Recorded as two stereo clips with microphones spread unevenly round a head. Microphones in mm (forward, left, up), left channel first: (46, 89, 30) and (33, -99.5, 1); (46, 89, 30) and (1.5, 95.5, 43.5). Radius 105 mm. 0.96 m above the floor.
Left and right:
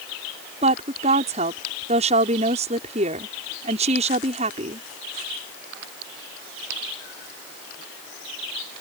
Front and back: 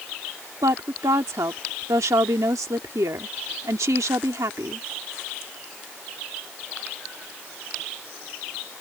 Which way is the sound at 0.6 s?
155° right.